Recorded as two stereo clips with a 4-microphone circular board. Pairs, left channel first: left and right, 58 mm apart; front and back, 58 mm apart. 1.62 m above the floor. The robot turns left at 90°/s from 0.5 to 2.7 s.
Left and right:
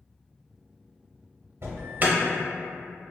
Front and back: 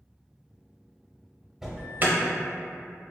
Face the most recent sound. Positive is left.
turn(degrees=165)